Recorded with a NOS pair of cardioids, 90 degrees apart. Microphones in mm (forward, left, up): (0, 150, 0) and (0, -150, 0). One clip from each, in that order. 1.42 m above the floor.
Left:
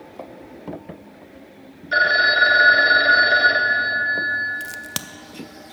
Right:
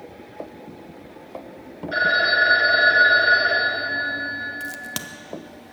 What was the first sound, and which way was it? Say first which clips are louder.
A phone ringing: left 2 dB; 35° left.